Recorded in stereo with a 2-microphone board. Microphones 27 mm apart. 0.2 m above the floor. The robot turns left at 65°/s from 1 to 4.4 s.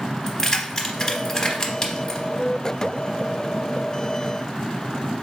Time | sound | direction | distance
0.3 | keys jangling | 20° left (ahead or behind) | 0.9 m